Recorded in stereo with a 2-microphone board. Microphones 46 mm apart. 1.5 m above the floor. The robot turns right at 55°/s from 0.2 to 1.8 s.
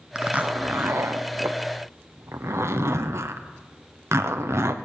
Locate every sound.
0.1 s a zipper: 20° right (ahead or behind), 0.8 m; by 4.8 s 65° right (ahead or behind), 0.8 m